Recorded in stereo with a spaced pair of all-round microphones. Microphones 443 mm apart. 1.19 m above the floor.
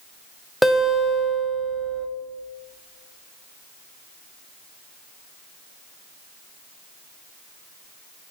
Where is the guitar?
Centre (ahead or behind), 1.2 m.